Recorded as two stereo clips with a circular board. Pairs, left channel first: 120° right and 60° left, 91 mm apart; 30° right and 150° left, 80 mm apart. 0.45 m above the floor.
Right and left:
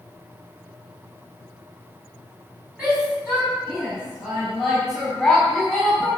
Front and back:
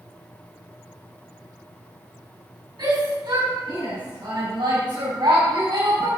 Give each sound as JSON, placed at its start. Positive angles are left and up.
{"t": 2.8, "sound": "a shout", "azimuth_deg": 135, "distance_m": 4.5}